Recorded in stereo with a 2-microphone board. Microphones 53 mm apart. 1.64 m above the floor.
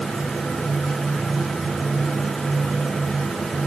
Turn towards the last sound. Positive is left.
No sound to turn to.